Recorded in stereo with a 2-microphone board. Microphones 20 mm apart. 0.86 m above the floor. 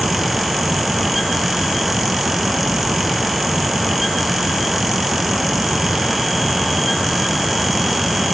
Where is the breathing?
No breathing in this recording.